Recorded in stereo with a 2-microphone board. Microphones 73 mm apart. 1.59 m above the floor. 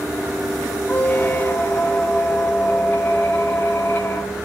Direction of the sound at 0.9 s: 30° left (ahead or behind).